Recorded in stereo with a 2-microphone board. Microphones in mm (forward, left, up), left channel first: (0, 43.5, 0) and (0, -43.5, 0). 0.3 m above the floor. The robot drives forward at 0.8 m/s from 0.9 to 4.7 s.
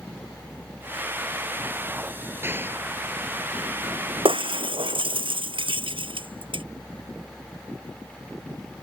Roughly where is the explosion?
Right.